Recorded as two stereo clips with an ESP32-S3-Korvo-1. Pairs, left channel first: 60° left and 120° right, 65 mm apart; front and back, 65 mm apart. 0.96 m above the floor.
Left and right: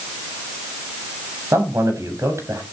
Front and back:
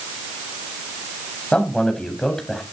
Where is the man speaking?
75° right, 7 m; by 2.6 s 85° right, 7 m.